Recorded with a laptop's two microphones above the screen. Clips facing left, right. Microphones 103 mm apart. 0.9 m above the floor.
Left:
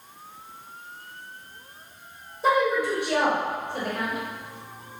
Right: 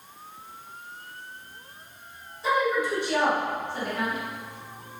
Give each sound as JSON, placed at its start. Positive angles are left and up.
{"t": 2.4, "sound": "a woman speaking", "side_deg": 60, "distance_m": 3.0}